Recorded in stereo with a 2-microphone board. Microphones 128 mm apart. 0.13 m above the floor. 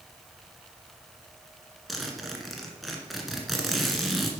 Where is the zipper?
Centre (ahead or behind), 1.6 m.